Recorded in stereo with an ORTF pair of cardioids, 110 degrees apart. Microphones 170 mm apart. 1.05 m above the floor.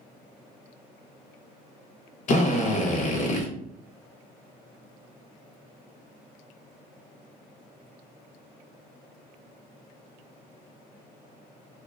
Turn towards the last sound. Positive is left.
turn(degrees=45)